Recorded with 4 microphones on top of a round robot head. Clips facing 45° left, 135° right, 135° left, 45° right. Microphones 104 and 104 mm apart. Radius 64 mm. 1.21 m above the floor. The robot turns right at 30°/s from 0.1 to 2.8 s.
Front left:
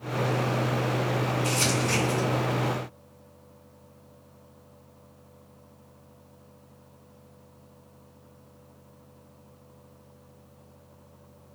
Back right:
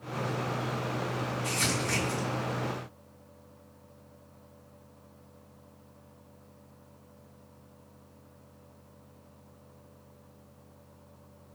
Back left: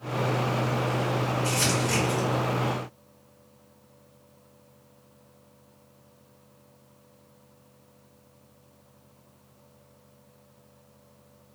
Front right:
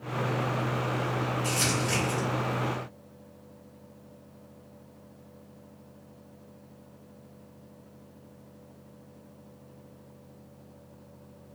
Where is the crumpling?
40° right, 1.4 m; by 2.3 s 15° right, 1.4 m.